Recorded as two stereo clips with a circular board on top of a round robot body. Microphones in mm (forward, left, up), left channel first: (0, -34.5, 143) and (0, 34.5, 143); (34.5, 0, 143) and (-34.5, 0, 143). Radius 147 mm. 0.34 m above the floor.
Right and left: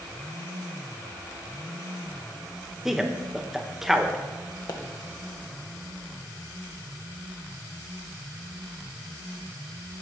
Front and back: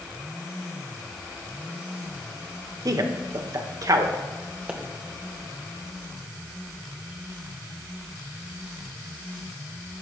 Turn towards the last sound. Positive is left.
turn(degrees=-110)